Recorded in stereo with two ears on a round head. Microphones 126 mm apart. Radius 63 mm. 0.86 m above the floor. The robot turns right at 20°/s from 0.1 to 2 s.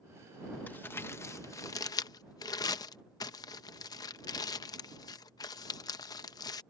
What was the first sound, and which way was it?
Crumpling, 10° left (ahead or behind).